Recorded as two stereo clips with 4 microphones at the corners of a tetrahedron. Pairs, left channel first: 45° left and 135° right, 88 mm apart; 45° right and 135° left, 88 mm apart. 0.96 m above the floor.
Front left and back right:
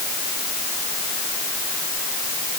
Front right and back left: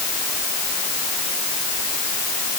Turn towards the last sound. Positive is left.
No sound to turn to.